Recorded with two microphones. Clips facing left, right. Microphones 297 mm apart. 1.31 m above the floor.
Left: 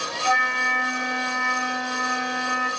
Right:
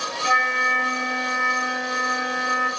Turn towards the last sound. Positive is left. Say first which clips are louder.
# even
turn(degrees=-15)  # may be behind; listen again after turning